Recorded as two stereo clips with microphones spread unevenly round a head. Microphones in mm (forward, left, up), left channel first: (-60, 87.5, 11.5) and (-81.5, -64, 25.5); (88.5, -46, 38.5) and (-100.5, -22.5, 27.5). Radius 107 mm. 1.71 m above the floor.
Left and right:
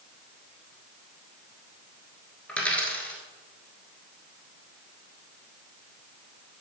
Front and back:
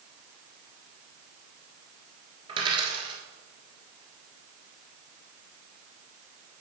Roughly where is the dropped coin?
Behind.